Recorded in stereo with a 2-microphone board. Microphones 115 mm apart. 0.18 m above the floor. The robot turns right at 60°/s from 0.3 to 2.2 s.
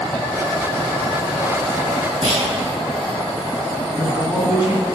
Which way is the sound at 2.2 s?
45° right (ahead or behind).